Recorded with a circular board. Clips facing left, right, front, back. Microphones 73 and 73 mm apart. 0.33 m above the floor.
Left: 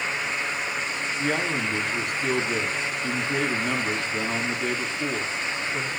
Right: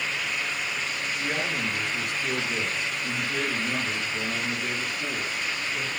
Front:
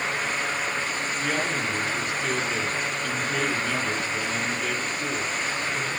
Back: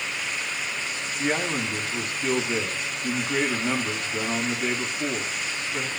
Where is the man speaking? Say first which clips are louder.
Left 4 dB, back 3 dB; 125° left, 3.5 m.